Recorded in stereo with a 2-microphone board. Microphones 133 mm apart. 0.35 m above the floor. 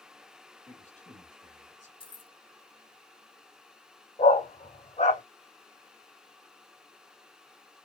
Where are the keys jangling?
40° left (ahead or behind), 1.2 m.